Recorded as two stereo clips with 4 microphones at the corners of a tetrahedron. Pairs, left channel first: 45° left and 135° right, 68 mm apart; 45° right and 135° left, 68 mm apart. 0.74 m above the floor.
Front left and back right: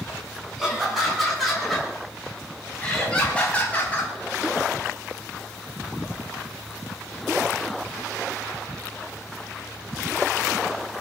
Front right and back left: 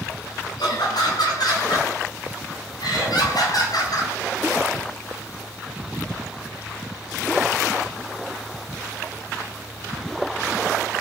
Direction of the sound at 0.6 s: 50° right.